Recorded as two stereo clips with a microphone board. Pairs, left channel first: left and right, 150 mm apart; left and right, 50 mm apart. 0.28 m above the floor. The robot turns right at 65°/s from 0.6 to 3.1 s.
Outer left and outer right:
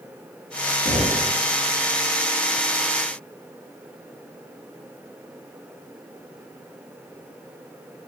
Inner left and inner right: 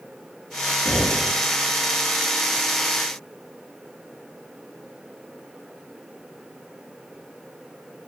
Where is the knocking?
70° left (ahead or behind), 3 m; by 1.3 s 75° left (ahead or behind), 3 m.